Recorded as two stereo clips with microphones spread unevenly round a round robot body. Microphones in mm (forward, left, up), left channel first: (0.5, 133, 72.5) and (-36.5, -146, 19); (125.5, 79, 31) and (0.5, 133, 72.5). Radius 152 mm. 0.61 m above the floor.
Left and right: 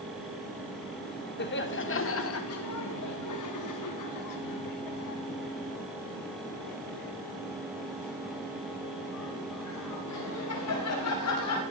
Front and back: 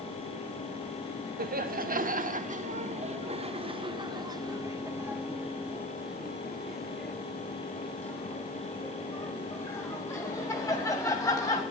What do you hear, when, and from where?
1.4 s laughter: 140° left, 2.5 m; by 11.6 s 40° left, 5.5 m